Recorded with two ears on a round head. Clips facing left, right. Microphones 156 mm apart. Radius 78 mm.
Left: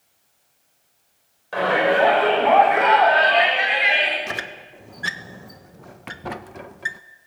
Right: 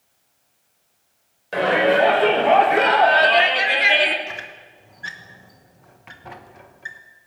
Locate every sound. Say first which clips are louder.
1.5 s a shout: right 2 dB; 25° right (ahead or behind), 6.5 m; by 4.2 s 60° right (ahead or behind), 3.5 m
4.3 s a squeak: left 4 dB; 65° left (ahead or behind), 1.1 m